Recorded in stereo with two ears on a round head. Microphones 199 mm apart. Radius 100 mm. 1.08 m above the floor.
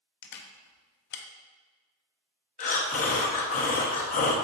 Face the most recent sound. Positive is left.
turn(degrees=35)  # may be behind; listen again after turning